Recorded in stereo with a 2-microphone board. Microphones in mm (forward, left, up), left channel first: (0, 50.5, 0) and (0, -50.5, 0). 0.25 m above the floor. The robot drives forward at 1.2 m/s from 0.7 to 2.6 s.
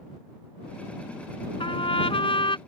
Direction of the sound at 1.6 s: 60° left (ahead or behind).